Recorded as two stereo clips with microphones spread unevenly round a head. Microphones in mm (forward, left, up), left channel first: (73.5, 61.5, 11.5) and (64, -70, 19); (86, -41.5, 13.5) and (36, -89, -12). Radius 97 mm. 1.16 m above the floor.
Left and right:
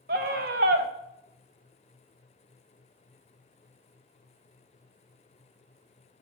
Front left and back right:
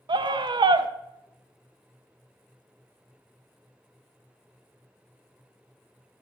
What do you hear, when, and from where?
0.1 s a scream: 130° right, 0.8 m